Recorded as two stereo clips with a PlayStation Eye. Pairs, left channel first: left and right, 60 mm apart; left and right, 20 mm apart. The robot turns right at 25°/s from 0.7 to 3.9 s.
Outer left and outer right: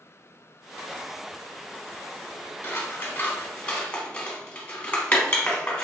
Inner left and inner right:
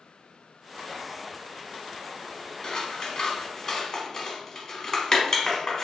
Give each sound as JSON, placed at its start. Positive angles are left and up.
{"t": 2.6, "sound": "scissors", "side_deg": 35, "distance_m": 1.1}